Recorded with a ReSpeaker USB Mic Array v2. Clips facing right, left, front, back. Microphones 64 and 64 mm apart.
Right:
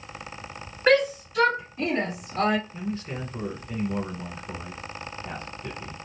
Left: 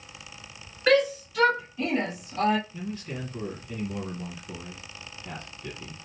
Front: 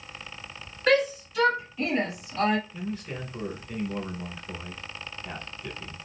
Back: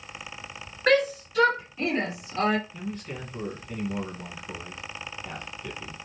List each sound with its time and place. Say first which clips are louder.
0.9 s a shout: right 1 dB, back 1 dB; 150° right, 1.9 m; by 2.6 s 115° right, 2.5 m
2.7 s a man speaking: right 3 dB, front 1 dB; 80° right, 1.2 m